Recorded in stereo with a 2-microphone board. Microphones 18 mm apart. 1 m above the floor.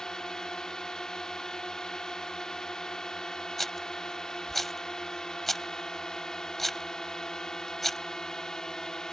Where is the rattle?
10° left (ahead or behind).